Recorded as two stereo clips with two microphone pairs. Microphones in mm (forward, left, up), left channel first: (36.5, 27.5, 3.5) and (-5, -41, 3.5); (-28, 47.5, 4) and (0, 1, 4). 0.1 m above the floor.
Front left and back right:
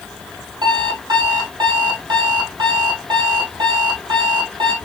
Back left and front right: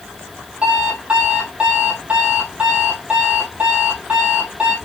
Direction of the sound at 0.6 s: 125° right.